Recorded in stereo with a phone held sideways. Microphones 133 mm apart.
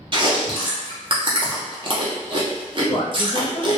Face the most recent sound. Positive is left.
turn(degrees=40)  # may be behind; listen again after turning